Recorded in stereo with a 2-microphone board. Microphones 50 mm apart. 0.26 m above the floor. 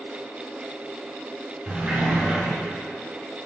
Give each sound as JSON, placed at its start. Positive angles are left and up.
{"t": 1.7, "sound": "a sliding door", "side_deg": -25, "distance_m": 1.5}